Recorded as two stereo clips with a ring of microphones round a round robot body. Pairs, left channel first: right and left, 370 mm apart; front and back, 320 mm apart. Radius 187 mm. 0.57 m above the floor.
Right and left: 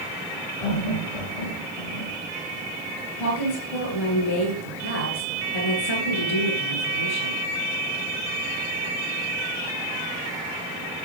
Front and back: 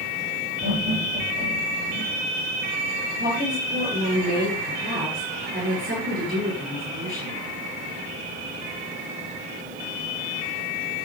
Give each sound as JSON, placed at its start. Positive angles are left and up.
{"t": 0.6, "sound": "laughter", "azimuth_deg": -105, "distance_m": 10.0}
{"t": 3.2, "sound": "a woman speaking", "azimuth_deg": -110, "distance_m": 10.0}